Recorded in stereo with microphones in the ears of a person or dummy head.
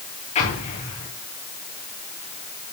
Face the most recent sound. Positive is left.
turn(degrees=30)  # may be behind; listen again after turning